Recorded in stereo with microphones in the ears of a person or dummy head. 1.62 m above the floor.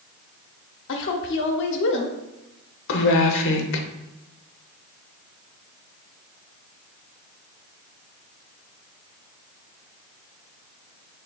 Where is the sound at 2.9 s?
70° left (ahead or behind), 0.9 m.